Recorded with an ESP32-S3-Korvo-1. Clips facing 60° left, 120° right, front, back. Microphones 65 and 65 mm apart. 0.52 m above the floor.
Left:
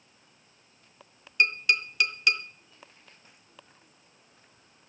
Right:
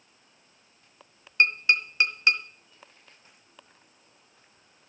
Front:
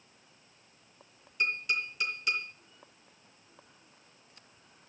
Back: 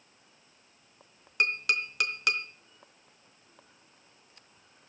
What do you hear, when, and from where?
1.4 s tapping: straight behind, 1.7 m